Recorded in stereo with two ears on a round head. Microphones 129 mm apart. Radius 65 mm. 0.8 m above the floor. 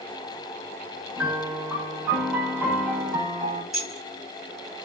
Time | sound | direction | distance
1.2 | a piano | 10° right (ahead or behind) | 0.7 m
3.7 | keys jangling | 5° right (ahead or behind) | 1.1 m